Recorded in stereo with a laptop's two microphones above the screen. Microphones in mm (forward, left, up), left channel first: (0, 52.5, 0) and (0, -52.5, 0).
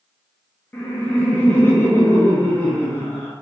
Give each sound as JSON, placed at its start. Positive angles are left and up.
{"t": 0.7, "sound": "laughter", "side_deg": 20, "distance_m": 0.7}